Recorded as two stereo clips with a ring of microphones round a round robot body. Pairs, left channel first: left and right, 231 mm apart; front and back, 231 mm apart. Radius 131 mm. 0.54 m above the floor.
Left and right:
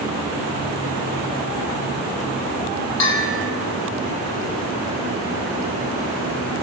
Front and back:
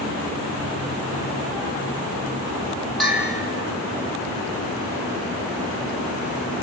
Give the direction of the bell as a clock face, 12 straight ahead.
9 o'clock.